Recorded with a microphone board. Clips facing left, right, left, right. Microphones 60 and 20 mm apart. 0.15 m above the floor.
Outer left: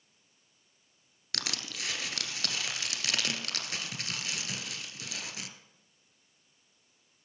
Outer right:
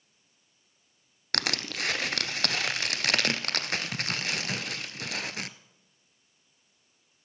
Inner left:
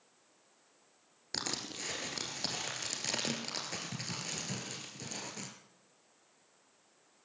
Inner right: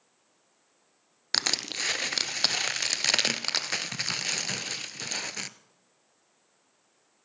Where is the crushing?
55° right (ahead or behind), 0.7 m.